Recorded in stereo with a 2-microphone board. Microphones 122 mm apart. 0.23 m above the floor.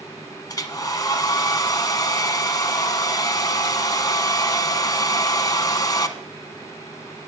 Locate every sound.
0.5 s a hair dryer: 35° left (ahead or behind), 0.8 m